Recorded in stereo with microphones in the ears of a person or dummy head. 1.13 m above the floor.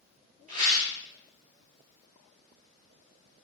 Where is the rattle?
45° right (ahead or behind), 3.5 m.